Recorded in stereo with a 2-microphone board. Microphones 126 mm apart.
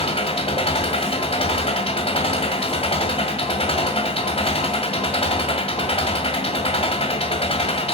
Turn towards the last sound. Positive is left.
turn(degrees=50)  # may be behind; listen again after turning